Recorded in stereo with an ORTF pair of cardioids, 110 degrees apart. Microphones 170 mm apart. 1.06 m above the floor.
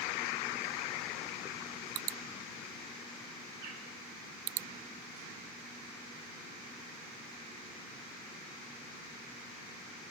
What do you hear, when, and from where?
3.6 s a bird: 55° right, 2.5 m